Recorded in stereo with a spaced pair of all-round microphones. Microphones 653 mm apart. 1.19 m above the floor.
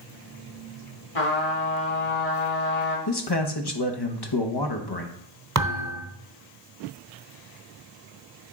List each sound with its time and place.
1.1 s a trumpet: 55° left (ahead or behind), 2.5 m
3.1 s a man speaking: 35° left (ahead or behind), 1.0 m
5.5 s a thud: 25° right (ahead or behind), 1.0 m